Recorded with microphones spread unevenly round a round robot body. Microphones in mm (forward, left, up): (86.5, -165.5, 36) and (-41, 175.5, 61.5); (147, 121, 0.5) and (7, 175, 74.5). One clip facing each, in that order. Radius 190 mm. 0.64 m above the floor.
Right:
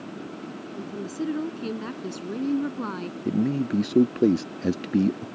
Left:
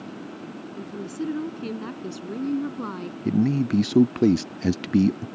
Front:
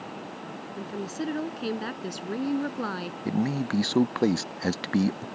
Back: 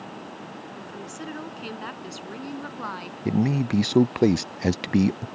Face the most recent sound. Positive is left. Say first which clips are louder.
# left 3 dB, back 4 dB
turn(degrees=55)